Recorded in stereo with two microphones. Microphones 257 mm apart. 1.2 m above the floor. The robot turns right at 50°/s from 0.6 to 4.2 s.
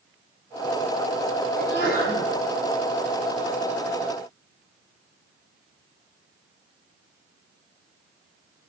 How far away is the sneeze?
About 8 m.